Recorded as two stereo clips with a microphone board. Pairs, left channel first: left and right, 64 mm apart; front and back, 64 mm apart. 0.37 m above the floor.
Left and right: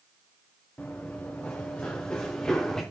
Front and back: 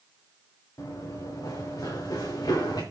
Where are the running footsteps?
25° left, 3.5 m; by 2.8 s 10° left, 3.5 m.